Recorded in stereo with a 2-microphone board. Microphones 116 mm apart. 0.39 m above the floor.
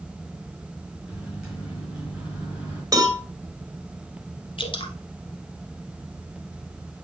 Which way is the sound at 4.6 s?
45° left (ahead or behind).